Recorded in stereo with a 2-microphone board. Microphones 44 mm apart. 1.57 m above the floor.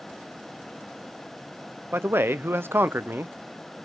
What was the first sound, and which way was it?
A man speaking, 60° right (ahead or behind).